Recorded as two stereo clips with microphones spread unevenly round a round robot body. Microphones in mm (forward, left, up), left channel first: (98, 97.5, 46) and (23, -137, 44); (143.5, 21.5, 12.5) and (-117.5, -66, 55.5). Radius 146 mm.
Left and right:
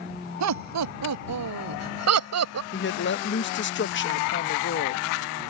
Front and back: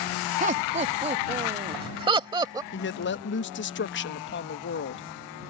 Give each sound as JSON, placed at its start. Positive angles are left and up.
{"t": 0.4, "sound": "laughter", "azimuth_deg": -95}
{"t": 2.7, "sound": "a woman speaking", "azimuth_deg": 40}